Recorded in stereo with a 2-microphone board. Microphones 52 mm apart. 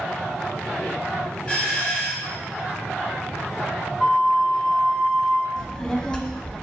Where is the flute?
15° left (ahead or behind), 0.9 m.